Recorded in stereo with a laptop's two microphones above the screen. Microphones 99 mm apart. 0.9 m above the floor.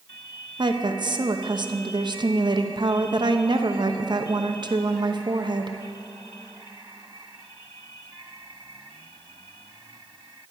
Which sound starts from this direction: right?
A woman speaking, at 0.6 s.